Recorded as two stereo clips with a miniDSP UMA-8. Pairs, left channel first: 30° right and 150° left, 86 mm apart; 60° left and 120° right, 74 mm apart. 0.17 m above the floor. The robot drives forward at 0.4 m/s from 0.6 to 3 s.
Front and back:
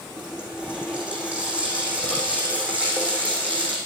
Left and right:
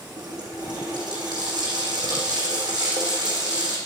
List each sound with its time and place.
0.2 s a running tap: 130° right, 5.5 m; by 3.8 s 140° right, 6.5 m